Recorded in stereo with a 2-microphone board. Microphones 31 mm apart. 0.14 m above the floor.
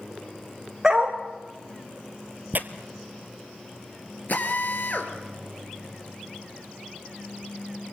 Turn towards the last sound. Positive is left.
turn(degrees=60)  # may be behind; listen again after turning